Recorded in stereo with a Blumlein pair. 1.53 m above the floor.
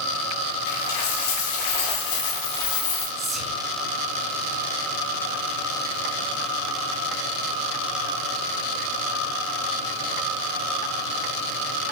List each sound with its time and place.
0.7 s a dropped coin: 50° left, 2.5 m
3.2 s whispering: 10° right, 2.5 m